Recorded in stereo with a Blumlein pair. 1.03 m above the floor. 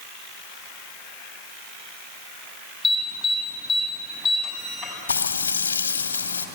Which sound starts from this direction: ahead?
An alarm, at 2.8 s.